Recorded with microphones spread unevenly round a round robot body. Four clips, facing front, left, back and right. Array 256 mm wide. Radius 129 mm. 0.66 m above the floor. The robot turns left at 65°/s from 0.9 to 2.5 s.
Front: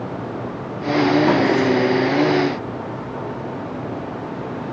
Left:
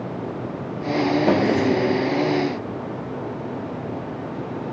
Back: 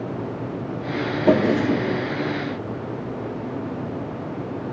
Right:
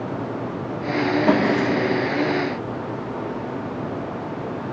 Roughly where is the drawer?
Behind left.